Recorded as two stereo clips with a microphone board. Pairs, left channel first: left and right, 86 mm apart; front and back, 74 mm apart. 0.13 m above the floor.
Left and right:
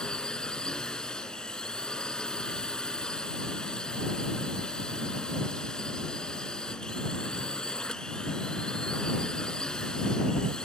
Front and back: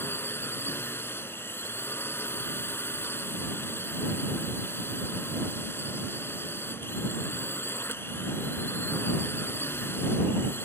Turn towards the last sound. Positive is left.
turn(degrees=15)